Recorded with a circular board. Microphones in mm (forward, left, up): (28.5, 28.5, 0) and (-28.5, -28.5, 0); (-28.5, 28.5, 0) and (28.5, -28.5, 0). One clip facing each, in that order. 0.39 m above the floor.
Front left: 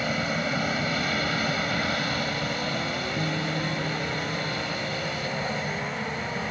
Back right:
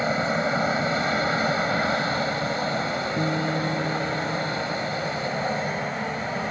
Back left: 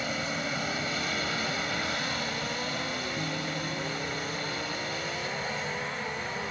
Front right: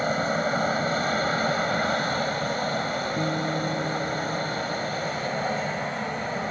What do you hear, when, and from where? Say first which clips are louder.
0.0 s an aircraft: back right 4 dB, front right 8 dB; 80° right
3.2 s a guitar: back right 5 dB, front right 7 dB; 95° right